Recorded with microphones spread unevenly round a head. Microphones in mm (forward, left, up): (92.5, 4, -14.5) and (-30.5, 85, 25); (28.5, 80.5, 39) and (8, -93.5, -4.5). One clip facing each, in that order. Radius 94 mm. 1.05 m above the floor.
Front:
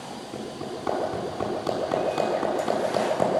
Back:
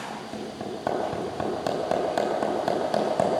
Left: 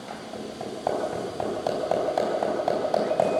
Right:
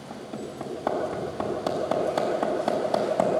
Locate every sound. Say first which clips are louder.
0.1 s hammering: even, right 1 dB; 175° left, 5 m